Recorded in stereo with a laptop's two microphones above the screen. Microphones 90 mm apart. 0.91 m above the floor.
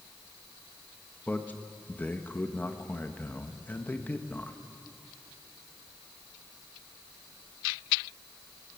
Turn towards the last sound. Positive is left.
turn(degrees=20)  # may be behind; listen again after turning